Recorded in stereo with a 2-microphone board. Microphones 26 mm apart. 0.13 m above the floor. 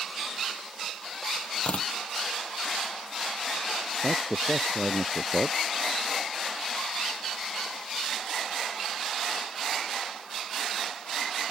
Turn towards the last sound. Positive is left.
turn(degrees=-20)  # may be behind; listen again after turning